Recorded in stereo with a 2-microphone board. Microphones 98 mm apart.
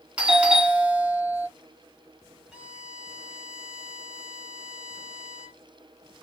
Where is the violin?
5° right (ahead or behind), 2.5 m.